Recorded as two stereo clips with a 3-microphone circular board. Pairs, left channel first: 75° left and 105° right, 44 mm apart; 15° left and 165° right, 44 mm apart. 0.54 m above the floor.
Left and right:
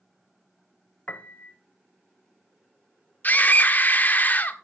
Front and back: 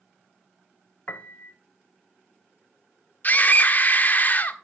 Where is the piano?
40° left, 0.6 m.